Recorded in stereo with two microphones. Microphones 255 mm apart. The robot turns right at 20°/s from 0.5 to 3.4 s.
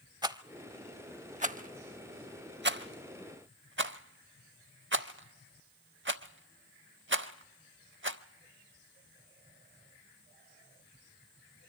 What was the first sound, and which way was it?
A rattle, 15° right (ahead or behind).